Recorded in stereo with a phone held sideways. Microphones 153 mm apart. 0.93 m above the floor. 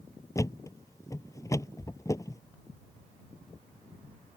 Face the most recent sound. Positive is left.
turn(degrees=-30)  # may be behind; listen again after turning